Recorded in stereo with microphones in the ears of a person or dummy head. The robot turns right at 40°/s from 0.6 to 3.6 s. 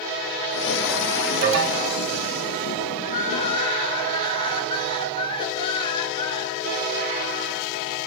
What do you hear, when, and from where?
1.4 s an alarm: 65° right (ahead or behind), 3 m; by 2.0 s 85° right, 3 m
3.0 s crying: 50° left (ahead or behind), 2.5 m; by 6.7 s 30° left (ahead or behind), 2.5 m